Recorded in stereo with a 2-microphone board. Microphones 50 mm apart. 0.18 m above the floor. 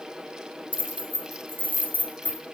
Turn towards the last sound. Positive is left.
turn(degrees=30)  # may be behind; listen again after turning